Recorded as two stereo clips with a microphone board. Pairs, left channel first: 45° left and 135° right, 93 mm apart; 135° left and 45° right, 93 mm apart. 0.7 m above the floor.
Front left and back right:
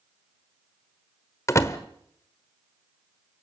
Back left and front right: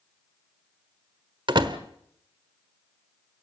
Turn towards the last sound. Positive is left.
turn(degrees=-15)